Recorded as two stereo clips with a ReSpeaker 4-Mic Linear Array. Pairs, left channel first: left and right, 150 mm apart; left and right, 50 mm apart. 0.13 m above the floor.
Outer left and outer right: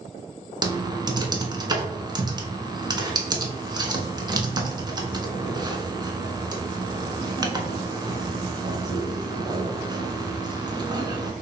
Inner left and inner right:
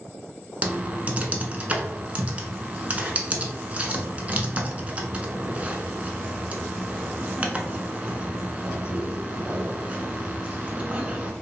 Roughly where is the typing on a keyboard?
Right.